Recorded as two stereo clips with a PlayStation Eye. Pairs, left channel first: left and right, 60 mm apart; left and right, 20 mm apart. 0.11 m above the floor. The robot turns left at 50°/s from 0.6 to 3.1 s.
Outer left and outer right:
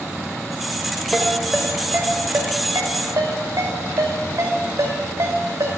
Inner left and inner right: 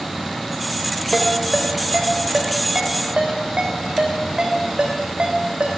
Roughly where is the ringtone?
Centre.